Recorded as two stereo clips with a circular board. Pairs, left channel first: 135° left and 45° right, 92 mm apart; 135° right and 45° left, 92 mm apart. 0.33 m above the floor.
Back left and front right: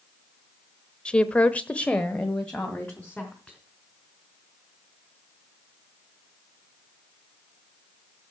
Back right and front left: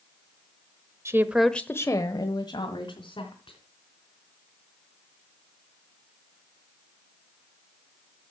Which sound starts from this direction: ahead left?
A woman speaking, at 1.1 s.